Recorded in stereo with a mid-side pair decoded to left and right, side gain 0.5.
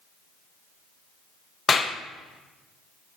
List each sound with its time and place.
1.7 s a clap: 35° left, 1.0 m